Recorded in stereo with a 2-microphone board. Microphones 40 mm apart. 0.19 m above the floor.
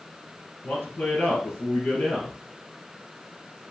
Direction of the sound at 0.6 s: 45° left (ahead or behind).